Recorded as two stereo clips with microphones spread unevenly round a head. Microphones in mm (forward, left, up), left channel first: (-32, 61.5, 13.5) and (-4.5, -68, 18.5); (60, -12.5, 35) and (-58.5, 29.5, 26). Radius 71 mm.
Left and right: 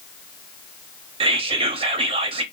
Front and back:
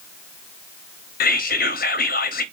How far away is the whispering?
About 0.7 m.